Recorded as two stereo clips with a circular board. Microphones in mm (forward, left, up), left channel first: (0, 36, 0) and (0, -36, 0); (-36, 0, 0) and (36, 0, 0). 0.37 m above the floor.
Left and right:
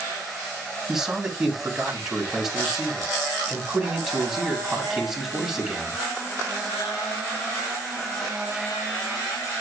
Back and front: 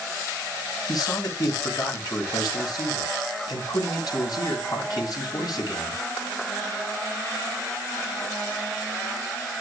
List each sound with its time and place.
0.9 s a man speaking: 175° right, 2.5 m